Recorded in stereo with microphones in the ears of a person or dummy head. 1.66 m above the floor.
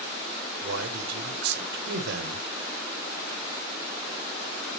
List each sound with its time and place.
0.6 s a man speaking: 65° right (ahead or behind), 1.5 m